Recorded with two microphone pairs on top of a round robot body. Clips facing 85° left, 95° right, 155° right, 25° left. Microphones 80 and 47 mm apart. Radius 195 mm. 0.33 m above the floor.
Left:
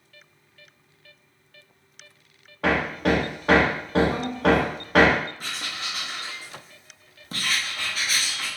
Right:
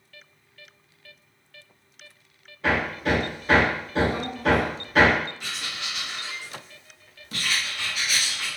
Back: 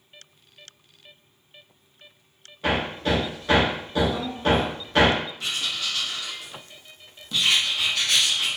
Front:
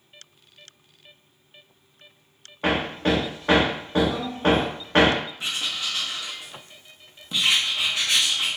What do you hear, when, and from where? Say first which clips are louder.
2.6 s hammering: left 2 dB, front 1 dB; 70° left, 0.6 m
5.4 s writing: left 1 dB, even; 85° left, 0.9 m